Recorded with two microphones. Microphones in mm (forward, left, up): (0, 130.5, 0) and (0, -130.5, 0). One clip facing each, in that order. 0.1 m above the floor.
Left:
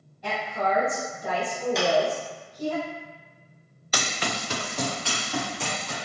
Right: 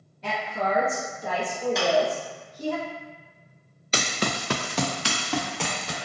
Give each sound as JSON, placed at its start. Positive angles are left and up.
{"t": 0.2, "sound": "a woman speaking", "side_deg": -25, "distance_m": 1.5}
{"t": 1.8, "sound": "a clap", "side_deg": 0, "distance_m": 1.2}
{"t": 3.9, "sound": "running footsteps", "side_deg": -25, "distance_m": 0.5}